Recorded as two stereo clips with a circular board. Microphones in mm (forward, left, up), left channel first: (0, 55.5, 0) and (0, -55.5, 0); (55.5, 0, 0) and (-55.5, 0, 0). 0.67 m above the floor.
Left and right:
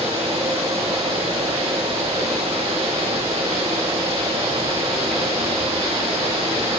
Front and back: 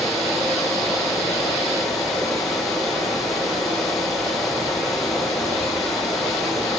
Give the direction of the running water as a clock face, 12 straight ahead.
3 o'clock.